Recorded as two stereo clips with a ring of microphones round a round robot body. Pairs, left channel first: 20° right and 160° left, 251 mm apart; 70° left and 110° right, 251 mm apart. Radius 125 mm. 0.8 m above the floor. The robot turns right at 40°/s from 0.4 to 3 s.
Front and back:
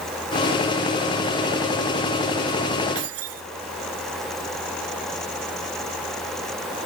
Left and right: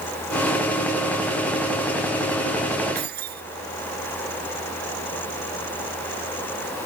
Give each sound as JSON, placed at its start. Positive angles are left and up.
{"t": 3.0, "sound": "keys jangling", "azimuth_deg": -170}